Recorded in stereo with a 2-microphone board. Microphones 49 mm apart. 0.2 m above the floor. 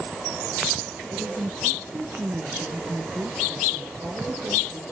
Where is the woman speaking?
60° right (ahead or behind), 3.5 m.